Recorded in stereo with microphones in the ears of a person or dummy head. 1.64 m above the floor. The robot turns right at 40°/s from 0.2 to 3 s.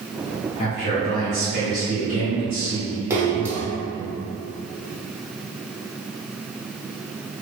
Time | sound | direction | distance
0.6 | a man speaking | 130° left | 0.7 m
3.1 | a splash | 15° right (ahead or behind) | 0.5 m